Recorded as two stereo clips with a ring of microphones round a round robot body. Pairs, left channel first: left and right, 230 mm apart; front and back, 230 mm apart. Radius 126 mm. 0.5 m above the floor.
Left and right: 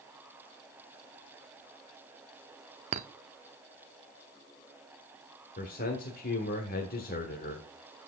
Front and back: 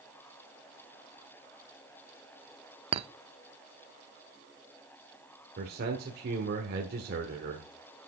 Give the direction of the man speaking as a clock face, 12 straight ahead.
7 o'clock.